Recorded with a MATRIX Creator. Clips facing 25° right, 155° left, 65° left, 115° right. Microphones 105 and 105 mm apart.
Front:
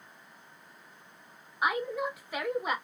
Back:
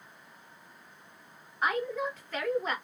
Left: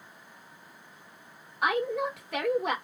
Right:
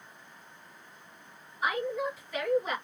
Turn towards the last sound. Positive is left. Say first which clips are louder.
# even, left 3 dB
turn(degrees=55)